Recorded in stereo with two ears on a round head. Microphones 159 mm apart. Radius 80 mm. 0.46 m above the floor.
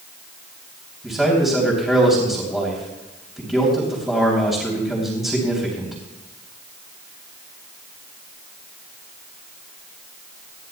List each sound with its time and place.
1.0 s a man speaking: centre (ahead or behind), 3.5 m